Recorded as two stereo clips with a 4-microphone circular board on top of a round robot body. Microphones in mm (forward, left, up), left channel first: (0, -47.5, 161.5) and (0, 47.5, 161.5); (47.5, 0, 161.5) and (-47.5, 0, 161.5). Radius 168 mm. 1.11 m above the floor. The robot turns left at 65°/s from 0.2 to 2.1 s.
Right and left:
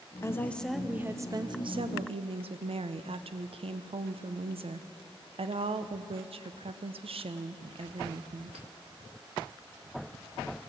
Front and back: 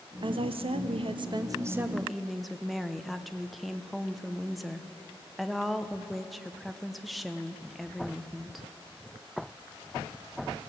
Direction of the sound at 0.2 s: 150° right.